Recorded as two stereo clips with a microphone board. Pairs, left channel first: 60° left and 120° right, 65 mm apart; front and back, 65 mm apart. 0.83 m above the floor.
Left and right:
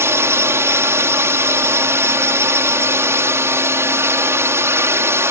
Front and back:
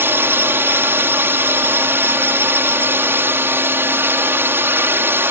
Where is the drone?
145° right.